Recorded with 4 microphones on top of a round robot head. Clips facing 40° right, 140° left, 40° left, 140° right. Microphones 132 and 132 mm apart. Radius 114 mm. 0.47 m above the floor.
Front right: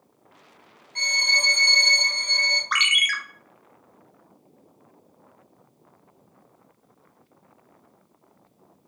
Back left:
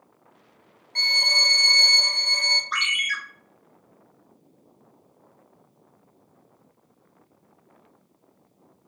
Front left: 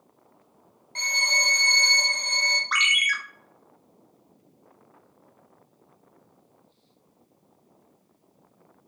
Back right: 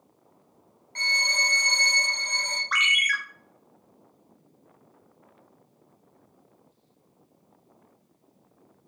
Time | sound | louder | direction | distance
0.9 | a violin | front right 1 dB, front left 1 dB | 110° left | 0.8 m
2.7 | a ringtone | front right 5 dB, back right 2 dB | 20° right | 0.6 m